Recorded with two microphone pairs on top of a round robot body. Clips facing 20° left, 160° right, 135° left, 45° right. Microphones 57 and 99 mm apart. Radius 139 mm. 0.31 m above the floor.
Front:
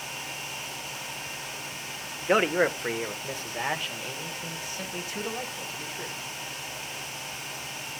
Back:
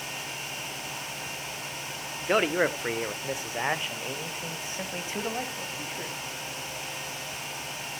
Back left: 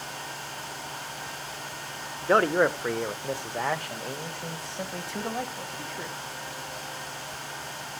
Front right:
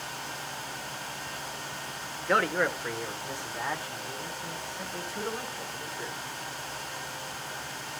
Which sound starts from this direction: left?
A man speaking, at 2.2 s.